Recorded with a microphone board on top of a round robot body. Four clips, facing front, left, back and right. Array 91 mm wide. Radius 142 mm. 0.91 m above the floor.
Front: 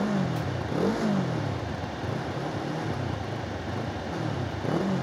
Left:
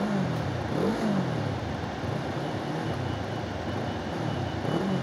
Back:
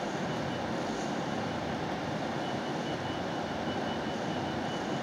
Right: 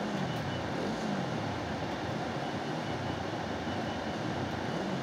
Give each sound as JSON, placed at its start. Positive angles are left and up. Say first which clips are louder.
{"t": 0.0, "sound": "a motorcycle", "louder": "left 5 dB, front 5 dB", "azimuth_deg": 35}